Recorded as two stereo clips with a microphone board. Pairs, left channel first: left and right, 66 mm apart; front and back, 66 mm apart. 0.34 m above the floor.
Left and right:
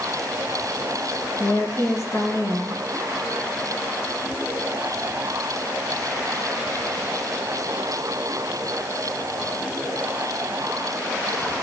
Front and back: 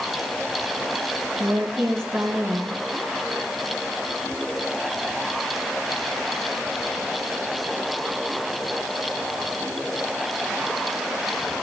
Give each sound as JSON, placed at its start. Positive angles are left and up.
{"t": 1.4, "sound": "a woman speaking", "azimuth_deg": 130, "distance_m": 4.0}